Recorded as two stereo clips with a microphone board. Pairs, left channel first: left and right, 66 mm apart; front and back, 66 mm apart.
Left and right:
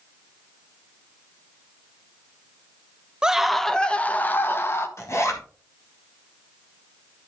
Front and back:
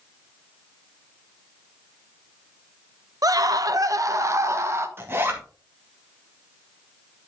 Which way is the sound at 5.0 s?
130° left.